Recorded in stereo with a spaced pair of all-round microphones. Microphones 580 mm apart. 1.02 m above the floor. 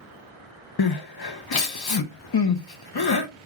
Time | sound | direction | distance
0.8 | crying | 45° left (ahead or behind) | 0.5 m